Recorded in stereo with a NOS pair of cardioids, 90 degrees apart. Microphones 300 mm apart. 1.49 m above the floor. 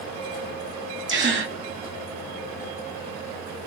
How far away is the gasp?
About 0.7 m.